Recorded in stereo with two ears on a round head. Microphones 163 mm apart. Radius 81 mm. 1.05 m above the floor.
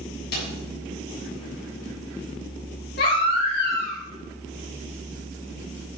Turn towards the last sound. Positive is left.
turn(degrees=65)  # may be behind; listen again after turning